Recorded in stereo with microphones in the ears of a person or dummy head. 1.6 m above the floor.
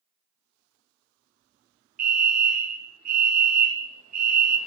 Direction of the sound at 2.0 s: 40° right (ahead or behind).